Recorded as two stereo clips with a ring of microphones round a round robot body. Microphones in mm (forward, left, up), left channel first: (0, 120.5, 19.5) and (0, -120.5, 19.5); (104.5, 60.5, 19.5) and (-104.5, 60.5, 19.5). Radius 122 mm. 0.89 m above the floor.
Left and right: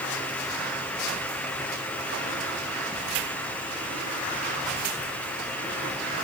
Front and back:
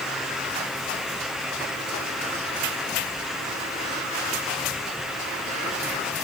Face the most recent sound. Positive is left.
No sound to turn to.